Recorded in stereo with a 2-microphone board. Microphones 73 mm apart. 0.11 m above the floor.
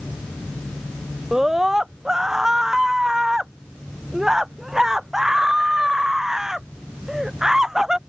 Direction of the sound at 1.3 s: 5° right (ahead or behind).